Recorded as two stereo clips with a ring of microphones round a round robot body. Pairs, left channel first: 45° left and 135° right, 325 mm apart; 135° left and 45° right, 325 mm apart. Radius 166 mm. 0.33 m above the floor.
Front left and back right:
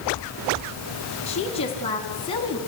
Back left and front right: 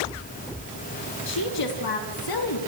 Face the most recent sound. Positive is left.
turn(degrees=120)